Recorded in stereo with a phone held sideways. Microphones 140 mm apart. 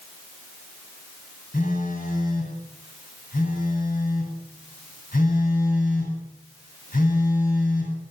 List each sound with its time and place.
1.5 s a phone buzzing: 70° left (ahead or behind), 9 m